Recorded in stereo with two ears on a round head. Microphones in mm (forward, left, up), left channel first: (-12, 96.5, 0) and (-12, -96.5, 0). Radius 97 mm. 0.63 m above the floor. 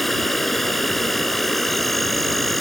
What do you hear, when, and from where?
0.0 s an insect: centre (ahead or behind)